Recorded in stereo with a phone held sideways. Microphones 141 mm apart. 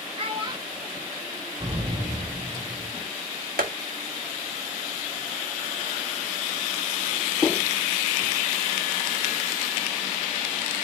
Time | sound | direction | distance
0.2 | a child speaking | 40° right (ahead or behind) | 1.7 m
1.6 | an explosion | 25° right (ahead or behind) | 1.8 m
3.6 | tapping | 80° right | 1.4 m